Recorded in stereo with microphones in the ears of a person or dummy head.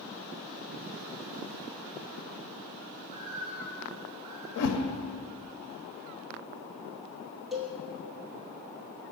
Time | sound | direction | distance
3.0 | a bird | 35° right (ahead or behind) | 3 m
4.6 | a whoosh | 65° left (ahead or behind) | 0.6 m
7.5 | a cowbell | centre (ahead or behind) | 1.0 m